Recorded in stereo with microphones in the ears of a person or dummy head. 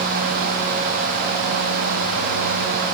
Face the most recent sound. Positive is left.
No sound to turn to.